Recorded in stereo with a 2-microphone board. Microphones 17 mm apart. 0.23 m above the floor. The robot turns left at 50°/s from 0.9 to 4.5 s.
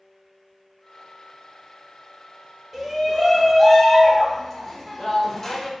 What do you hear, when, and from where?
2.7 s a shout: 15° right (ahead or behind), 1.2 m; by 5.7 s 20° left (ahead or behind), 1.2 m